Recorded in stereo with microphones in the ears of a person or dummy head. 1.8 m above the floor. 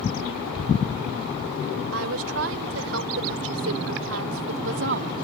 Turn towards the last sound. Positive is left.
turn(degrees=-65)  # may be behind; listen again after turning